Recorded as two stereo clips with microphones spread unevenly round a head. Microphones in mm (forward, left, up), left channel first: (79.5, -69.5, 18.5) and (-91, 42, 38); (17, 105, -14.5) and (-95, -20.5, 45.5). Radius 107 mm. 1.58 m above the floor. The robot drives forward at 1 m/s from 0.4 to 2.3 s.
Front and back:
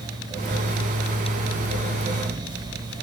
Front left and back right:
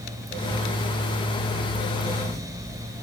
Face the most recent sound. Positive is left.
No sound to turn to.